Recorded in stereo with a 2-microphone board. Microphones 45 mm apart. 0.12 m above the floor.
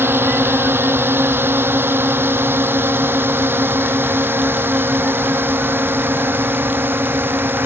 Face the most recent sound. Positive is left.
turn(degrees=-60)  # may be behind; listen again after turning